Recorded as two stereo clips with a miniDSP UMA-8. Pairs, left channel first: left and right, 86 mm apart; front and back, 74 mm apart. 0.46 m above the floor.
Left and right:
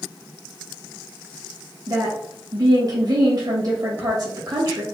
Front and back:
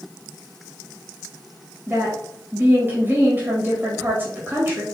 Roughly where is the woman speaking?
Behind right.